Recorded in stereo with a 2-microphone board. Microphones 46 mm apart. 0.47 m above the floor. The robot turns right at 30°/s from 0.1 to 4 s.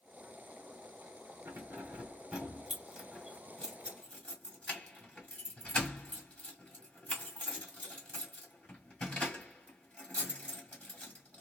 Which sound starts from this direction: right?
Keys jangling, at 1.4 s.